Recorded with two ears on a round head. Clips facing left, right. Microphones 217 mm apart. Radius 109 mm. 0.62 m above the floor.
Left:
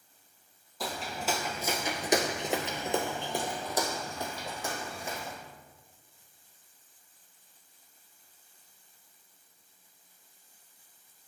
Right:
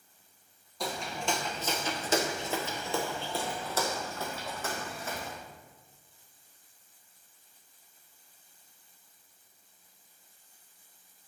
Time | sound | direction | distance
0.8 | footsteps | centre (ahead or behind) | 1.0 m